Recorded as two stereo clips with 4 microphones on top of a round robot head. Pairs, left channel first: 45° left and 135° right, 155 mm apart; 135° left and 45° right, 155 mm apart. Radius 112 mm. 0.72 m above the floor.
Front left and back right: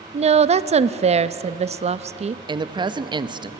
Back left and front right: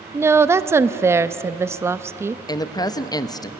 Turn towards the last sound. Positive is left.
turn(degrees=-175)